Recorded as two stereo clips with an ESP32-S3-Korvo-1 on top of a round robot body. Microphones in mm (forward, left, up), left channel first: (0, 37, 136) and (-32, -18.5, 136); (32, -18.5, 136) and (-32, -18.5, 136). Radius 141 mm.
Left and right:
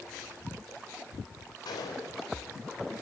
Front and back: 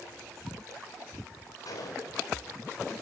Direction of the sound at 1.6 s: 35° left.